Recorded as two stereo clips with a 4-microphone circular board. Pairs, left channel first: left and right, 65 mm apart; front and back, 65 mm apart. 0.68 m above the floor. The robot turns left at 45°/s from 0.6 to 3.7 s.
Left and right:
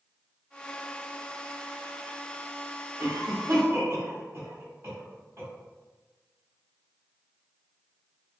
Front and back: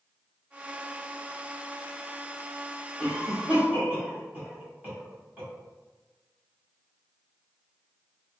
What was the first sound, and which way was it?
A cough, 95° right.